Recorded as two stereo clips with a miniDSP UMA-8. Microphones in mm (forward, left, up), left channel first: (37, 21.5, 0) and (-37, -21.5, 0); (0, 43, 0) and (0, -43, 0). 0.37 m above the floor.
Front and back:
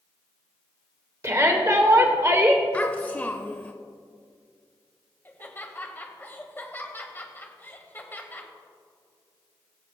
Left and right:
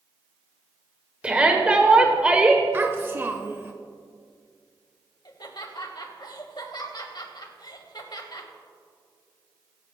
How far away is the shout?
About 1.1 m.